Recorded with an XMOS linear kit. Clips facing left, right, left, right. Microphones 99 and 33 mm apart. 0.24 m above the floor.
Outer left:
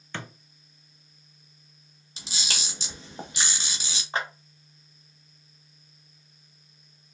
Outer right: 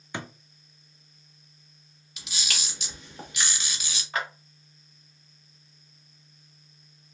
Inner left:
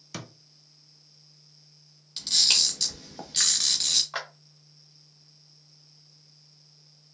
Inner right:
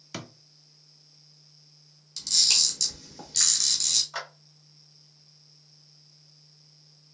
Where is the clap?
30° left (ahead or behind), 1.0 m.